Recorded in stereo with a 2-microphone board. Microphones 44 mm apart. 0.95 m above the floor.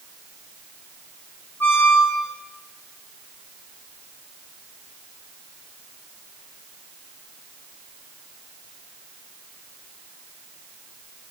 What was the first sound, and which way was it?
A squeak, 60° left (ahead or behind).